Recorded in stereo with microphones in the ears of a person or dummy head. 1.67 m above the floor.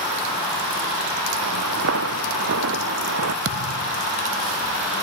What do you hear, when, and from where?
1.4 s footsteps: 60° right (ahead or behind); by 3.4 s 55° right (ahead or behind)
3.5 s a thud: 65° right (ahead or behind)